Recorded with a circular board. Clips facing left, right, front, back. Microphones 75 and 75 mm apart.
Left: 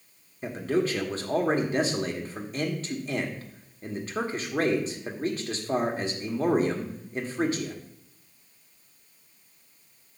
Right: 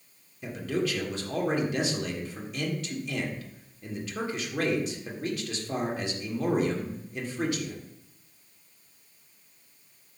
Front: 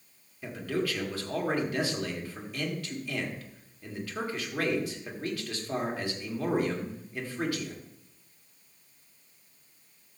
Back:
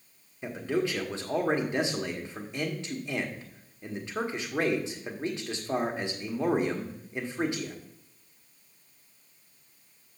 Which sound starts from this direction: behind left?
A man speaking, at 0.4 s.